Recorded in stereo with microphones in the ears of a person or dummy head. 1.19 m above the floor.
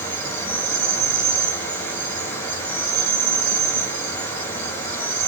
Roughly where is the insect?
Centre.